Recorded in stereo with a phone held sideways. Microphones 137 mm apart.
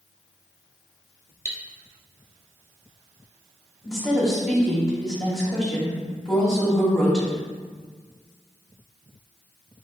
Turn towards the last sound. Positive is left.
turn(degrees=5)  # may be behind; listen again after turning